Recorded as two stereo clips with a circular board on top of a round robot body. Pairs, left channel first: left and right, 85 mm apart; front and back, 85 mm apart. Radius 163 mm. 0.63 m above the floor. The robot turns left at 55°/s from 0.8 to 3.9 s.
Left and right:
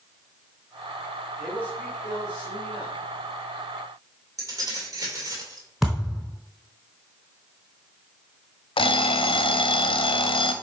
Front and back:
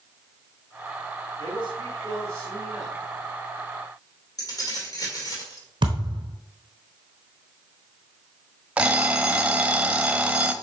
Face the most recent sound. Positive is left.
turn(degrees=105)